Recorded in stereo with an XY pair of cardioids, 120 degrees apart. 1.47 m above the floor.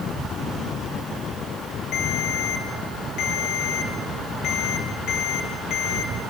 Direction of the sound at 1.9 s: 70° left.